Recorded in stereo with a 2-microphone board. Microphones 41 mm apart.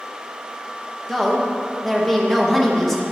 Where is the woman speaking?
5° left (ahead or behind), 0.7 m.